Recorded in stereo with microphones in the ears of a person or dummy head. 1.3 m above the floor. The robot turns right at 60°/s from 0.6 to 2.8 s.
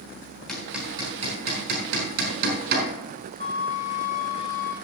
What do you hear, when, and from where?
0.5 s hammering: 10° left (ahead or behind), 4 m; by 2.9 s 60° right (ahead or behind), 4 m
3.4 s a flute: 50° left (ahead or behind), 2 m